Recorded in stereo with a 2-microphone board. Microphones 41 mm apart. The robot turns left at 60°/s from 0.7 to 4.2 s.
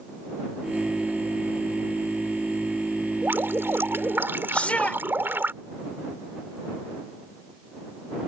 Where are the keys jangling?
I don't hear keys jangling.